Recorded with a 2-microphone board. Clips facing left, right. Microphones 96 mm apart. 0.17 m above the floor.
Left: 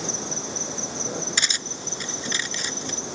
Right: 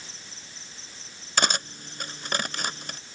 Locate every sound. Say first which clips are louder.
0.0 s an insect: left 17 dB; 80° left
1.4 s cutlery clinking: right 4 dB; 55° right (ahead or behind)